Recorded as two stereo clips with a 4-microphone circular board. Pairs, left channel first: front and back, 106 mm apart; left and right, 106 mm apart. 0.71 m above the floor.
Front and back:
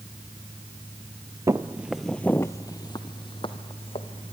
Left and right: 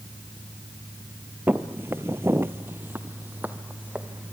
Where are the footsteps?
150° right, 0.8 m; by 4.3 s 15° right, 1.9 m.